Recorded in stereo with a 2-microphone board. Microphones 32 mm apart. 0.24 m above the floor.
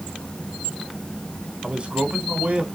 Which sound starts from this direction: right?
A man speaking, at 1.6 s.